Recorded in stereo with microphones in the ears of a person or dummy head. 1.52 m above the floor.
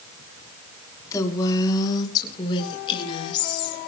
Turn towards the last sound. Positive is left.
turn(degrees=30)  # may be behind; listen again after turning